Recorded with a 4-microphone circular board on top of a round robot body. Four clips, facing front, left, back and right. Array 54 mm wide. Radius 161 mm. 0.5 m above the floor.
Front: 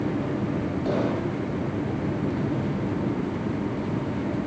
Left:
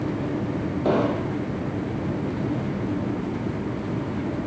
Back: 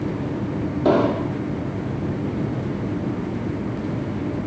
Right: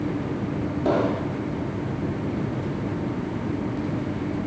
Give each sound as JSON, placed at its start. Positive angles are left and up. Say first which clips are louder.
{"t": 0.8, "sound": "an explosion", "louder": "even, back 9 dB", "azimuth_deg": 160, "distance_m": 4.0}